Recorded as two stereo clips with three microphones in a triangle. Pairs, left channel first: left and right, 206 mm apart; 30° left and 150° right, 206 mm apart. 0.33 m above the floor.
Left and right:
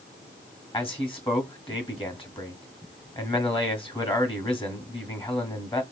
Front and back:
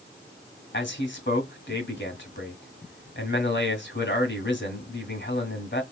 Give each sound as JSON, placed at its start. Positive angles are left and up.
{"t": 0.7, "sound": "a man speaking", "azimuth_deg": 30, "distance_m": 1.7}